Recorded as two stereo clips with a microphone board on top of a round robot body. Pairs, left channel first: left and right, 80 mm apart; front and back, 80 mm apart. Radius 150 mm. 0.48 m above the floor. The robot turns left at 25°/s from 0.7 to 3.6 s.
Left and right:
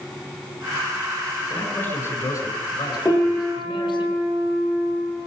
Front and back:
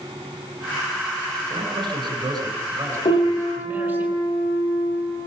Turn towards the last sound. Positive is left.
turn(degrees=5)